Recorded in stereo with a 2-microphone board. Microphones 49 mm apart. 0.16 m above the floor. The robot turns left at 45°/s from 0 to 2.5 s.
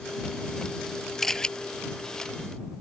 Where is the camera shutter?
5° left (ahead or behind); by 1.5 s 20° left (ahead or behind).